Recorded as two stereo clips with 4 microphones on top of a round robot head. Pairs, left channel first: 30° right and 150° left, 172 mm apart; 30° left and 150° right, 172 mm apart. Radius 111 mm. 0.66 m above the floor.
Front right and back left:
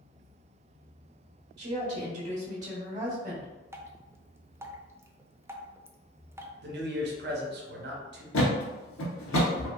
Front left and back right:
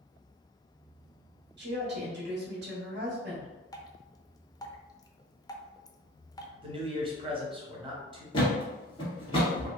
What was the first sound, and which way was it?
A woman speaking, 150° right.